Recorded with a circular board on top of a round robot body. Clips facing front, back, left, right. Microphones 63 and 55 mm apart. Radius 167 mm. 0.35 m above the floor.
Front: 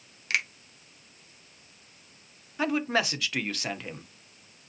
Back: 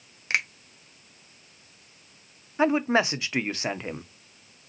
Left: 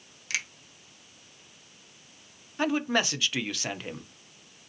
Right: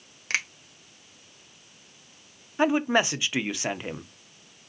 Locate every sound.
0.3 s a finger snap: 120° right, 1.5 m
2.6 s a man speaking: 140° right, 1.0 m